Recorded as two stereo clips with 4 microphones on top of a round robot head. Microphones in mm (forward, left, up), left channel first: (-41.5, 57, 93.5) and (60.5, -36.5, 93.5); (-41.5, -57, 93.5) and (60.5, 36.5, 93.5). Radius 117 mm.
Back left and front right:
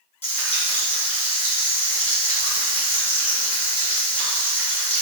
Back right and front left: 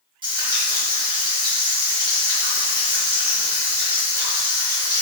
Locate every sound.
0.2 s frying: 95° left, 1.9 m